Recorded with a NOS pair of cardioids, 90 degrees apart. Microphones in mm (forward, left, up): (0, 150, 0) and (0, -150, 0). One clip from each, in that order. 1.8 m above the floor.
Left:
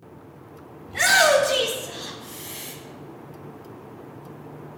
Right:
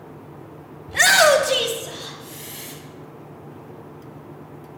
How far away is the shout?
About 0.9 m.